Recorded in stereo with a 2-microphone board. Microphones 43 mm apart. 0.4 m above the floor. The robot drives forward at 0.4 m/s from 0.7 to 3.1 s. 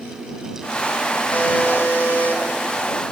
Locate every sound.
1.3 s a buzzer: 50° left (ahead or behind), 2.0 m